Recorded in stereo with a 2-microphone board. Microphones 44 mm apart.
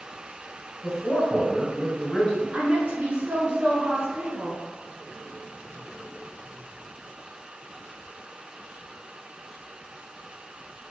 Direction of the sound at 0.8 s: 20° left (ahead or behind).